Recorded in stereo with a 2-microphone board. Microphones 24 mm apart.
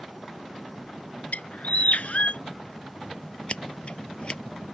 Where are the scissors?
45° left (ahead or behind).